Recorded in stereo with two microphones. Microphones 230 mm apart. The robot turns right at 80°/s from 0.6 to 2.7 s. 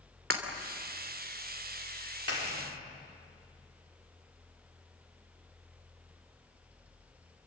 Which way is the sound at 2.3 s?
80° left.